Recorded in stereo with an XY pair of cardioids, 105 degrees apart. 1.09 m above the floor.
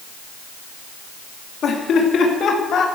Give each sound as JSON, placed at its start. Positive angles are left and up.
{"t": 1.6, "sound": "laughter", "azimuth_deg": 65, "distance_m": 2.5}